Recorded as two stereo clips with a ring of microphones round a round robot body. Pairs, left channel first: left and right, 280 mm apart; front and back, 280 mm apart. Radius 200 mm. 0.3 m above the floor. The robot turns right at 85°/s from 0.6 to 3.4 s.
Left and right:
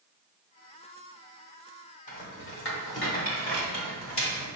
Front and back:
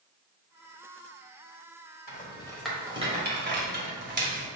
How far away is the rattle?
About 1.6 m.